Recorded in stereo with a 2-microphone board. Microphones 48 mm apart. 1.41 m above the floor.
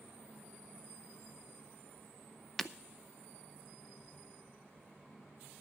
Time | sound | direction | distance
2.6 | breaking glass | 5° left (ahead or behind) | 0.6 m